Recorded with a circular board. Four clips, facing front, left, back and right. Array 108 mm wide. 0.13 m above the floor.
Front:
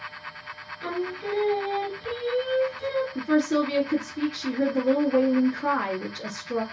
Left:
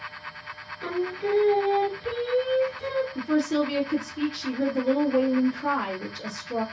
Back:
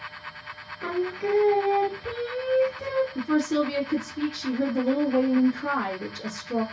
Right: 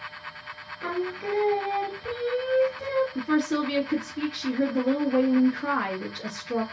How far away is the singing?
About 0.8 m.